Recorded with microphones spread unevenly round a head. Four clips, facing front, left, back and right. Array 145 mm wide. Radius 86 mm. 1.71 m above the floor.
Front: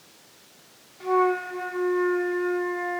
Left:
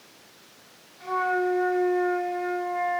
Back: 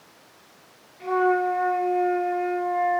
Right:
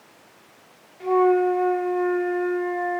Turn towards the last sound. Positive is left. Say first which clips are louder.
# right 7 dB, back 1 dB
turn(degrees=-85)